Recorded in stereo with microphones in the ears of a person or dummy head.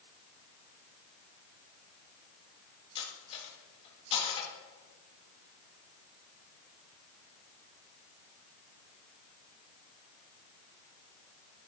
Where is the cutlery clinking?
35° left (ahead or behind), 3.5 m.